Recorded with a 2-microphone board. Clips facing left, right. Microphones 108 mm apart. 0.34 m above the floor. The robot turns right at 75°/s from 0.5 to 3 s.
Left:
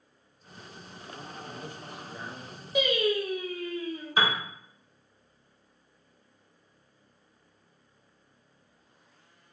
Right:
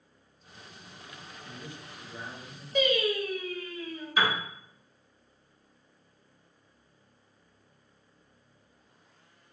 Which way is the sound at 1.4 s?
110° left.